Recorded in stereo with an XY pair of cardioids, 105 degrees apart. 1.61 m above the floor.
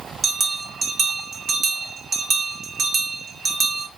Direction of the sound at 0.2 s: 50° right.